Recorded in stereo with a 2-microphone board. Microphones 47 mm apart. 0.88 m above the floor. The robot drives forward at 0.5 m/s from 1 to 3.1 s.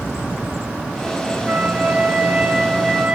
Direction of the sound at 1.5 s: 30° right (ahead or behind).